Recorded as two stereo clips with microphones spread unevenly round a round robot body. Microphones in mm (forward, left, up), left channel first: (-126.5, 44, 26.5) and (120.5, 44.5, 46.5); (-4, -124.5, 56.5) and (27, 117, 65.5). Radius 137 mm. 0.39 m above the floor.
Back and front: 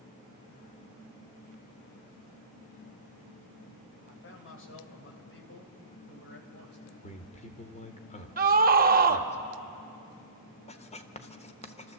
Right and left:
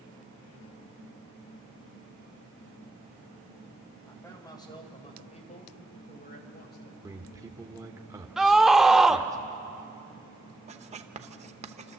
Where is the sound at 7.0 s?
155° left, 1.1 m.